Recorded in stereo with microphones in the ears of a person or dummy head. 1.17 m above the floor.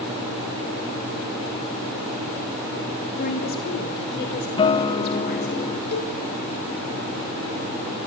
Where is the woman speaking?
50° left (ahead or behind), 3 m; by 5.6 s 55° left (ahead or behind), 5 m.